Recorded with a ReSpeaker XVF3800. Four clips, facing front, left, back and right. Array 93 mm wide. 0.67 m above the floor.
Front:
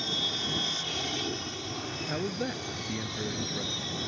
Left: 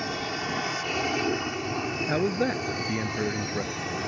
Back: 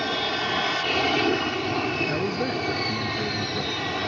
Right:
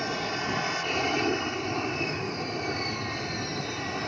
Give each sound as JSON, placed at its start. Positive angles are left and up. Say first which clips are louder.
{"t": 0.0, "sound": "an aircraft", "louder": "right 1 dB, back 9 dB", "azimuth_deg": 180}
{"t": 2.1, "sound": "a man speaking", "louder": "left 7 dB, back 7 dB", "azimuth_deg": 110}